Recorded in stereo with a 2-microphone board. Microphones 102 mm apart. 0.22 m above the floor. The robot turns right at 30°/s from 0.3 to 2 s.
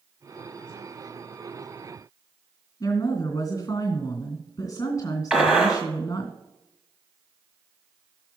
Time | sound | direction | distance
2.8 | a woman speaking | 35° left (ahead or behind) | 2.5 m
5.3 | a gunshot | 10° right (ahead or behind) | 1.7 m